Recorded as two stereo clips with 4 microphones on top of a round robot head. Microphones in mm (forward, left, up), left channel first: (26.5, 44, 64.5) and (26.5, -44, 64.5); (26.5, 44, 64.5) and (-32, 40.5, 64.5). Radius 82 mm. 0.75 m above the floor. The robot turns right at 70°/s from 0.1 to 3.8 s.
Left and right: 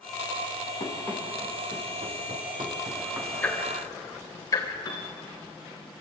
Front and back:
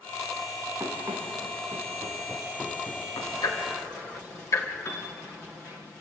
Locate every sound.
0.8 s running footsteps: 135° left, 5 m; by 3.3 s 20° right, 4 m
3.4 s ticking: 15° left, 3.5 m; by 4.7 s 40° left, 3.5 m
4.8 s a piano: 45° left, 3.5 m